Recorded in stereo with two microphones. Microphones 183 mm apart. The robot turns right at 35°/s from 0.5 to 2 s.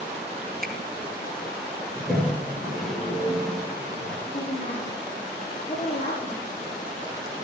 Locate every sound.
0.6 s a finger snap: 55° right (ahead or behind), 3.5 m
1.9 s a toilet flushing: 5° right (ahead or behind), 5.5 m
4.3 s a woman speaking: 35° left (ahead or behind), 6 m